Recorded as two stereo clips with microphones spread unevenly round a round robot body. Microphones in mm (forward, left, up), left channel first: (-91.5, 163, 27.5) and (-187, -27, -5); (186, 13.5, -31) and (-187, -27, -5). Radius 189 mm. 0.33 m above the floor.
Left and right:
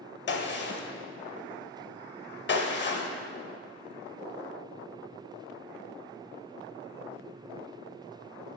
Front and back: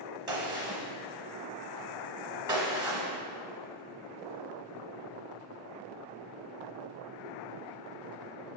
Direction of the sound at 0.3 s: 105° left.